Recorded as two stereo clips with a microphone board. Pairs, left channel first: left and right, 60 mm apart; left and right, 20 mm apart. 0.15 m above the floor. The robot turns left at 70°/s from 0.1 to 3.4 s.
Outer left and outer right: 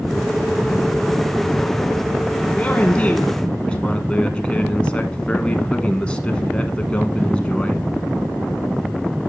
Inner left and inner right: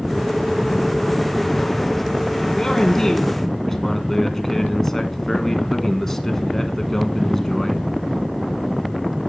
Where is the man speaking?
25° left (ahead or behind), 1.1 m; by 7.9 s 20° left (ahead or behind), 1.1 m.